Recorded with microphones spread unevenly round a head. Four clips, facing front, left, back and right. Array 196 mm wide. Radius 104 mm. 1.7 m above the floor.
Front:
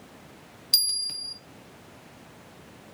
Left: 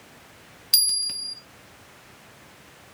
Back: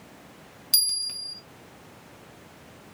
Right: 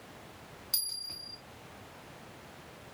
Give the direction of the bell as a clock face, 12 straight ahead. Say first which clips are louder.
Left 10 dB, front 1 dB; 9 o'clock.